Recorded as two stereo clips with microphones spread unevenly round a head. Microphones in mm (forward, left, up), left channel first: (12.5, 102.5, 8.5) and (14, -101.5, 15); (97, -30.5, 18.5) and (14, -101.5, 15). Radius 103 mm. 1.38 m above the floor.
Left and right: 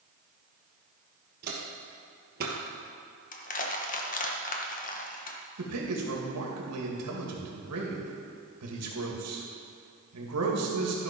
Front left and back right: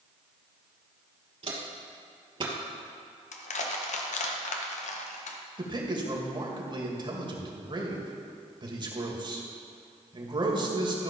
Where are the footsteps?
125° right, 2.5 m; by 2.5 s 110° right, 2 m.